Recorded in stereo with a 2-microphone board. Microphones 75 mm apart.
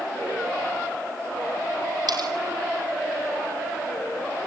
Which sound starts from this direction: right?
Cutlery clinking, at 2.1 s.